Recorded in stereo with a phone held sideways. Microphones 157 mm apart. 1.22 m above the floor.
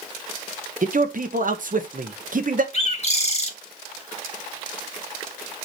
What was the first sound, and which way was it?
A man speaking, 60° right (ahead or behind).